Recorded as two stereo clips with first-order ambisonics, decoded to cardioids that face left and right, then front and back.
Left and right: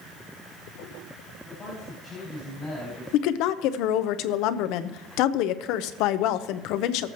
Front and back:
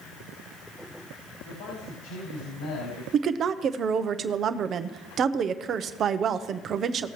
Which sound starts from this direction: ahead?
A man speaking, at 1.4 s.